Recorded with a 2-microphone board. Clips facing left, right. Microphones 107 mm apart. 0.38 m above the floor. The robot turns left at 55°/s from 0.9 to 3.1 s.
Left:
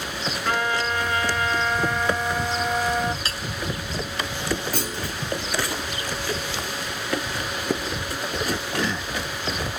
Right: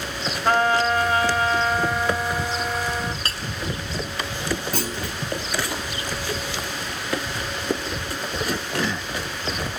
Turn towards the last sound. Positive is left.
turn(degrees=-55)  # may be behind; listen again after turning